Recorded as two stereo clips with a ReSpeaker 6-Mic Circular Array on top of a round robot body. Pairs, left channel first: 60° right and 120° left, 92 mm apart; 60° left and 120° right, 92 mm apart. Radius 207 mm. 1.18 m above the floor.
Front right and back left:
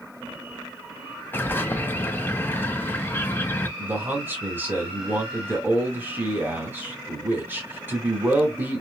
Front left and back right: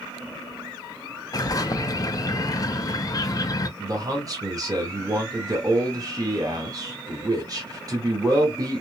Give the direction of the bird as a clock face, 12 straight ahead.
12 o'clock.